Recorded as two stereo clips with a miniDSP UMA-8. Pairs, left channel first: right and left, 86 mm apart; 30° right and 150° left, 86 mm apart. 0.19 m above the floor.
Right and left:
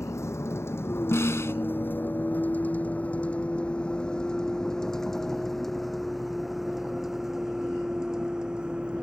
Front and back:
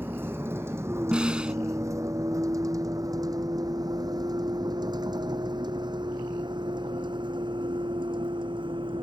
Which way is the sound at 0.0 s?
145° right.